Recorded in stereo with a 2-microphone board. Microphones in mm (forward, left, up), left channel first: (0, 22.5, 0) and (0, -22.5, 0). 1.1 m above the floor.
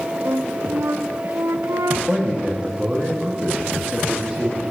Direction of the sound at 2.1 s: 15° right (ahead or behind).